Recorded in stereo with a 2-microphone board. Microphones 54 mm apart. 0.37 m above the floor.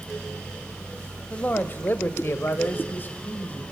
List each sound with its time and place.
1.3 s a man speaking: 25° left (ahead or behind), 1.9 m; by 3.6 s 30° left (ahead or behind), 2.5 m